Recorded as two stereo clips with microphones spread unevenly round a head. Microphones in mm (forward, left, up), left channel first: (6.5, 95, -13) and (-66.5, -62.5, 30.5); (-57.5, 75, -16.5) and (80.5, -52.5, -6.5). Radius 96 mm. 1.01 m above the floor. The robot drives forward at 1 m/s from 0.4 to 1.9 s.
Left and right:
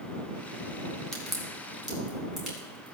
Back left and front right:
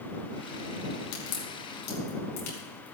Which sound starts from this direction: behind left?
A crack, at 1.1 s.